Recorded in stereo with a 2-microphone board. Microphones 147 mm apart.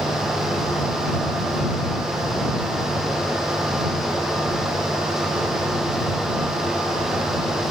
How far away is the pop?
I don't hear a pop.